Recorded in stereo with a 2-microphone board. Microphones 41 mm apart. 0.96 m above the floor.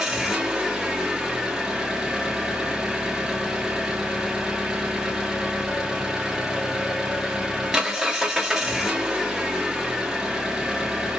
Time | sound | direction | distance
0.0 | an engine running | 15° right (ahead or behind) | 0.8 m